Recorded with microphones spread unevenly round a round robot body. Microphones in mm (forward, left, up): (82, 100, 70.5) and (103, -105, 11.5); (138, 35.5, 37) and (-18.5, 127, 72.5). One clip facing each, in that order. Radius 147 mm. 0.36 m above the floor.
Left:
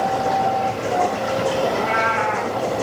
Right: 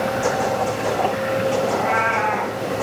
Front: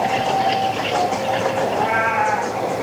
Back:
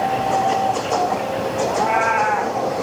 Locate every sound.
1.7 s a cat meowing: 45° left, 8.5 m